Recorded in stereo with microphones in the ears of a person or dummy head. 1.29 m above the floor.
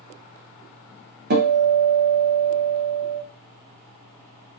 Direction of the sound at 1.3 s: 45° right (ahead or behind).